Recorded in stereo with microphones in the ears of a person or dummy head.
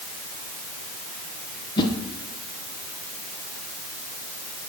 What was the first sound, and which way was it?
A whoosh, 25° left (ahead or behind).